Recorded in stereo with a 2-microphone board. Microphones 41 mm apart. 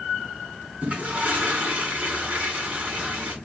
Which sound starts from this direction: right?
A toilet flushing, at 0.8 s.